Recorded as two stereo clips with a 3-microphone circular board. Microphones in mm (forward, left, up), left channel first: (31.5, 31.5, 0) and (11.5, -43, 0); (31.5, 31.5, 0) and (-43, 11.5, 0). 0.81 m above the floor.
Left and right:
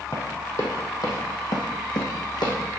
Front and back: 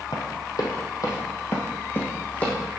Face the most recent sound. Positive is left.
turn(degrees=85)